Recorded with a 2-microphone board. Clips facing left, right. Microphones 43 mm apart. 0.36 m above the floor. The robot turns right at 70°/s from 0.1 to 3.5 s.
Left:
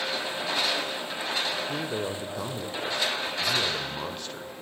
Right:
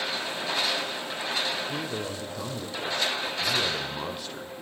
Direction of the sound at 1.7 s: 20° left (ahead or behind).